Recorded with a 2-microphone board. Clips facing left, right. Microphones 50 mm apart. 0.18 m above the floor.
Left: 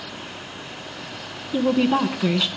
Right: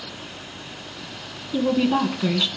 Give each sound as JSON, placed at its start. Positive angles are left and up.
{"t": 1.5, "sound": "a woman speaking", "side_deg": 15, "distance_m": 1.4}